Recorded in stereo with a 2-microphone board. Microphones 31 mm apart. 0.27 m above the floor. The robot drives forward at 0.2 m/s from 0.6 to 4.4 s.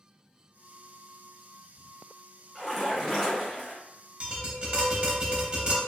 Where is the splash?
Centre (ahead or behind), 1.4 m.